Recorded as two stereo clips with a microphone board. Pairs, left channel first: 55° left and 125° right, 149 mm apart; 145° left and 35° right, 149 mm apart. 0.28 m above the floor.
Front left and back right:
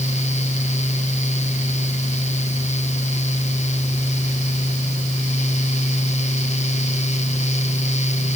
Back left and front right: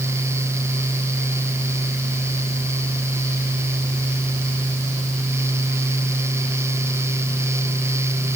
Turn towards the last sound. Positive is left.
No sound to turn to.